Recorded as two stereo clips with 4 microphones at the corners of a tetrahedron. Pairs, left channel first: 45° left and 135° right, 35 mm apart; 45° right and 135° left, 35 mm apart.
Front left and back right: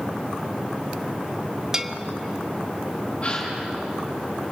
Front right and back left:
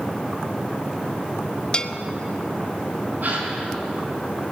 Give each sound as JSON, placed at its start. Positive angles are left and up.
{"t": 1.7, "sound": "a bell", "azimuth_deg": -80, "distance_m": 0.7}
{"t": 3.2, "sound": "a gasp", "azimuth_deg": 100, "distance_m": 6.0}